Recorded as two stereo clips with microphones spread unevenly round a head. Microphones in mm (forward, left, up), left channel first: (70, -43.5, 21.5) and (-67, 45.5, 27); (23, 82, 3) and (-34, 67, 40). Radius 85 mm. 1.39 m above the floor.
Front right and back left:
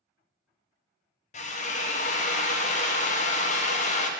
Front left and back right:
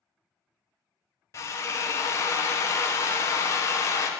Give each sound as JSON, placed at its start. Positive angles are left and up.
{"t": 1.3, "sound": "a drill", "azimuth_deg": 10, "distance_m": 1.1}